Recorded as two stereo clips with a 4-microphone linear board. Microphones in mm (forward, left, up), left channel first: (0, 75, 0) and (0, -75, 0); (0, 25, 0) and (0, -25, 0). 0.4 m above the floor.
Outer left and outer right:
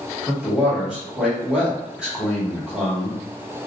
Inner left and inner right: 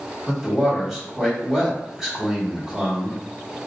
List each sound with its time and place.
0.3 s a man speaking: 5° right (ahead or behind), 1.4 m